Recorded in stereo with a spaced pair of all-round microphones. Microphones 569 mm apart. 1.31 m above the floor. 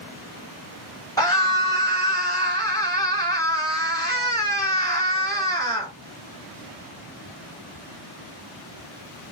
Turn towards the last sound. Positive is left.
turn(degrees=5)  # may be behind; listen again after turning